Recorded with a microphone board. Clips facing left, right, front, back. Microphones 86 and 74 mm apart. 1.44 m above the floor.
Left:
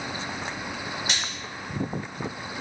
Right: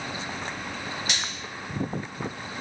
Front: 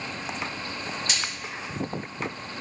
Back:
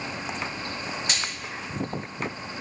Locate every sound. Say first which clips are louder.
1.1 s a splash: left 1 dB, even; 140° left, 1.4 m